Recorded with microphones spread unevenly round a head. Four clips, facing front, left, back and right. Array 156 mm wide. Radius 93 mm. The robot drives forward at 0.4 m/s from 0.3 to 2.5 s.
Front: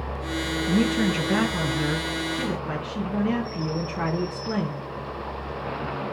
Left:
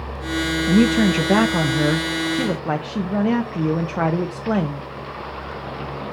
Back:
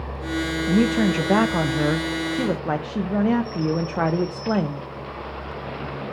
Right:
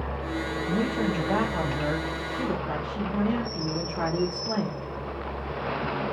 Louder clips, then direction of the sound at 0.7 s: Left 11 dB, back 3 dB; 85° left.